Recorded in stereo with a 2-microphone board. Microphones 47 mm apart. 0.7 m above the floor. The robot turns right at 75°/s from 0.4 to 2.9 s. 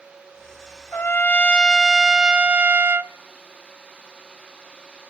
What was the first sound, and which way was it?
A trumpet, 100° left.